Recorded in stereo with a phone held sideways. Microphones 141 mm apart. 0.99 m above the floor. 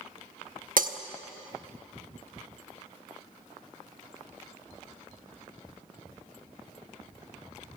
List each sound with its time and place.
0.8 s breaking glass: 75° right (ahead or behind), 1.0 m